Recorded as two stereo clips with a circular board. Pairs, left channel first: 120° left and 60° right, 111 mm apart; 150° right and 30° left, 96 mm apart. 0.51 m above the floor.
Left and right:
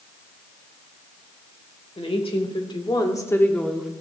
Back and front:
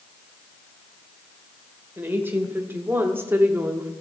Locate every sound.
2.0 s a woman speaking: 95° left, 1.8 m; by 3.9 s 10° left, 0.9 m